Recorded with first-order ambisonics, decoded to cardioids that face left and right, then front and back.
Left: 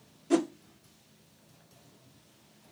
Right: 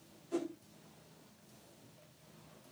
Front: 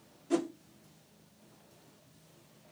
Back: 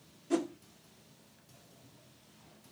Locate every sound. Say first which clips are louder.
0.3 s a whoosh: left 11 dB, front 1 dB; 90° left, 1.2 m